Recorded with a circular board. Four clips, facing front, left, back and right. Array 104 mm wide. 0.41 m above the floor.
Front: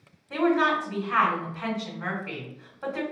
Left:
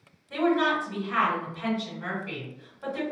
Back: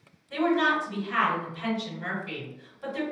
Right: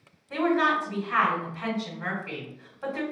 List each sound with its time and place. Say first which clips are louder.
0.3 s a woman speaking: even, front 1 dB; 25° right, 1.4 m